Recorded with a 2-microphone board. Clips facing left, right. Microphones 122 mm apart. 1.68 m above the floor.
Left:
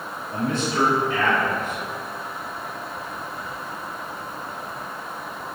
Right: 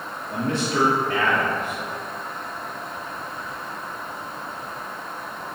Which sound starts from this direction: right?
A man speaking, at 0.3 s.